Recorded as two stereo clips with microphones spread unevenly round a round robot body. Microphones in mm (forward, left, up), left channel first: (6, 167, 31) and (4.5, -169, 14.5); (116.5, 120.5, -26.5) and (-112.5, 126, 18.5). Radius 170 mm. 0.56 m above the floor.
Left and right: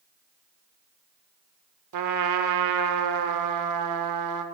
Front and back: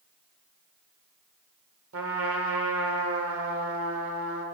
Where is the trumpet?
125° right, 0.8 m.